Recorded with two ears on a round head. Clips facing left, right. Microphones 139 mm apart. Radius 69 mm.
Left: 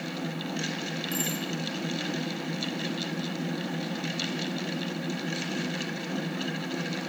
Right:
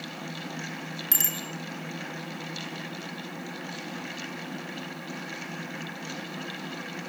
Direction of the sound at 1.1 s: 55° right (ahead or behind).